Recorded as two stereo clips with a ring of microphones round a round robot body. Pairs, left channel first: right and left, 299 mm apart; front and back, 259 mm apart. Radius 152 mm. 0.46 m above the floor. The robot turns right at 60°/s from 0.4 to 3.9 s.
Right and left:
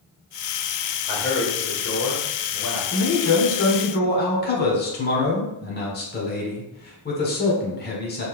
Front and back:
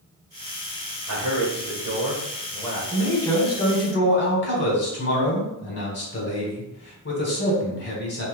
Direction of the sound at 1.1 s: 165° right.